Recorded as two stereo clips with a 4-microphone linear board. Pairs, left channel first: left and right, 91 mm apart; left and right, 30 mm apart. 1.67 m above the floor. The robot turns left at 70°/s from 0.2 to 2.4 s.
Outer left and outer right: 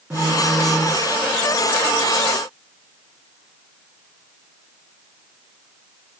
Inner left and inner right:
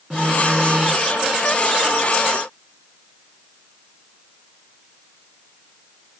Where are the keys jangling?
No keys jangling in this recording.